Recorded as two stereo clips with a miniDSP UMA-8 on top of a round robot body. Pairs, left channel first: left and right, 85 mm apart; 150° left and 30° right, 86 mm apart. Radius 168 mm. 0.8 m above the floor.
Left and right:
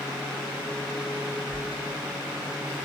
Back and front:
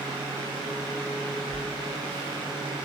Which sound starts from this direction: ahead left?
A sliding door, at 1.5 s.